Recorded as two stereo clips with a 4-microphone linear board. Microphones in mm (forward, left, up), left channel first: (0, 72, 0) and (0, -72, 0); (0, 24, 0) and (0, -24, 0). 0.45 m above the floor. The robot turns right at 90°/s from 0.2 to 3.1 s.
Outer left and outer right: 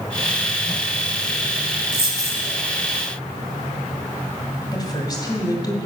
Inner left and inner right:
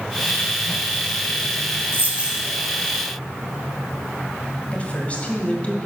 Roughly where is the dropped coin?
Ahead right.